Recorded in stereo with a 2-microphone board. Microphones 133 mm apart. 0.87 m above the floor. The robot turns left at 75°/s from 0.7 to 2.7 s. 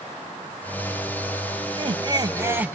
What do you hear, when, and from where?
1.7 s laughter: 85° right, 0.5 m; by 2.8 s 165° right, 0.5 m